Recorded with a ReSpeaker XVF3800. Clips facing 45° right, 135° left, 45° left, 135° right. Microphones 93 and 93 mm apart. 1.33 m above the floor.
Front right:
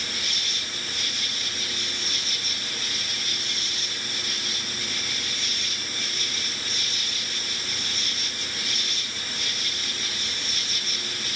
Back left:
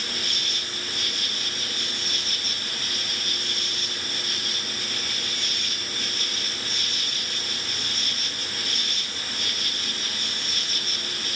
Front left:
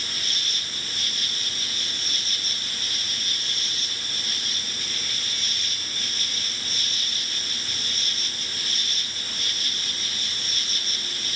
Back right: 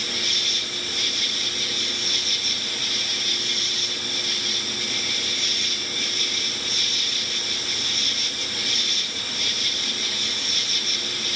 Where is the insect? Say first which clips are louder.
Back left 1 dB, back right 4 dB; 95° left.